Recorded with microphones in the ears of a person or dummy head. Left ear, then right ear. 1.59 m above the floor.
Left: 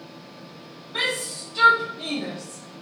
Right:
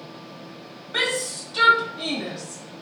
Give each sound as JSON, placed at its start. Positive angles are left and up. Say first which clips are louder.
{"t": 0.9, "sound": "a shout", "louder": "right 2 dB", "side_deg": -50, "distance_m": 0.5}